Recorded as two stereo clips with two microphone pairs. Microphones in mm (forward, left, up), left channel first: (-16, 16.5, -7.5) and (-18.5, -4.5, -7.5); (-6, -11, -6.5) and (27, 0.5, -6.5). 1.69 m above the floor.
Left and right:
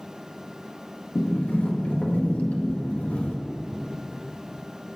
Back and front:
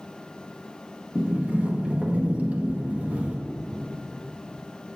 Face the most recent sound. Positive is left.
turn(degrees=75)